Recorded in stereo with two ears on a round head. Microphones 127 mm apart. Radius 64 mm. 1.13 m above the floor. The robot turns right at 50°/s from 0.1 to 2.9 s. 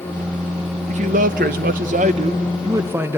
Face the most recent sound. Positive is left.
turn(degrees=-20)